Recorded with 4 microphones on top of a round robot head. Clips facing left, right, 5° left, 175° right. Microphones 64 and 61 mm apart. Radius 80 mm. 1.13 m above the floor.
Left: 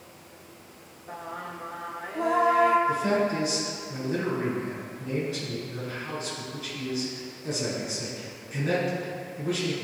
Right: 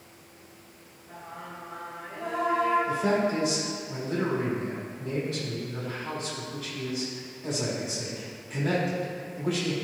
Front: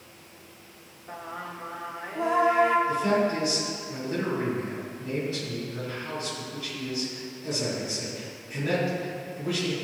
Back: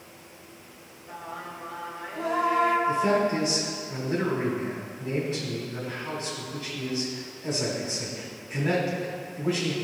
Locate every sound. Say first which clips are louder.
1.1 s singing: left 5 dB, front 1 dB; 75° left, 0.9 m
2.9 s a man speaking: left 1 dB, back 1 dB; 110° right, 3.5 m